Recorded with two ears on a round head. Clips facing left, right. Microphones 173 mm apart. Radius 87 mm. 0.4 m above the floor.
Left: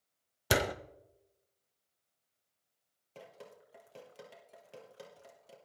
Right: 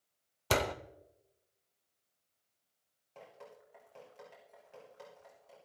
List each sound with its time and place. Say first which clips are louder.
0.5 s a door slam: left 1 dB; 10° left (ahead or behind), 0.6 m
3.1 s dripping: left 1 dB; 45° left (ahead or behind), 3 m